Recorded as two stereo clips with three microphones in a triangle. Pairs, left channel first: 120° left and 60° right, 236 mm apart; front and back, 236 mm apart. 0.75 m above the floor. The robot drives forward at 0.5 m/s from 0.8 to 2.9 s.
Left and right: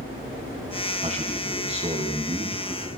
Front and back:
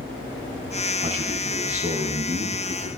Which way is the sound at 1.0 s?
120° right.